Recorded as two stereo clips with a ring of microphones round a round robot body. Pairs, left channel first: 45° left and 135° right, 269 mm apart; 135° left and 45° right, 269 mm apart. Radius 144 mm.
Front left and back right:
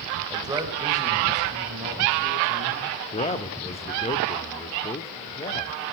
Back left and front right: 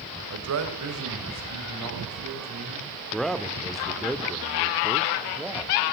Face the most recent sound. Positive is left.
turn(degrees=50)